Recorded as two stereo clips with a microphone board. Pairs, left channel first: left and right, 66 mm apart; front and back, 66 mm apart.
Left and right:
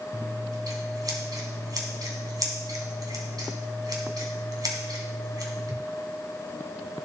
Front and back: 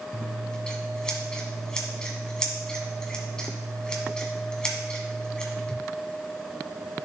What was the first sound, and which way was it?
Scissors, 75° right.